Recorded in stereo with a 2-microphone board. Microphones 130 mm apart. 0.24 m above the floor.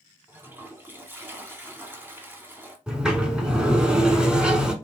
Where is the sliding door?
5° right (ahead or behind), 0.7 m.